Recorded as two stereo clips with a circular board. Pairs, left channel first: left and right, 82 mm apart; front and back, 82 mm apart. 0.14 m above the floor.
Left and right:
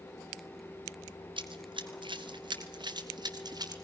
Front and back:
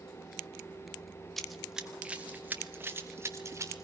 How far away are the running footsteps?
About 2 m.